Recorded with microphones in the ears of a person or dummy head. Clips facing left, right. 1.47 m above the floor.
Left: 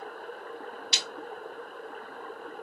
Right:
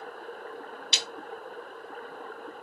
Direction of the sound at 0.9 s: 20° right (ahead or behind).